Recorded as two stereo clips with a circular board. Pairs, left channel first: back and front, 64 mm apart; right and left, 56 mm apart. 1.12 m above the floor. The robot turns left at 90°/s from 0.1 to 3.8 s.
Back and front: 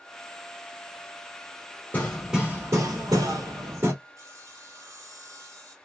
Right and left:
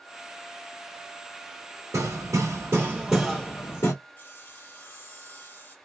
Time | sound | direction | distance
1.9 | hammering | 120° left | 2.5 m
4.2 | sawing | 40° right | 4 m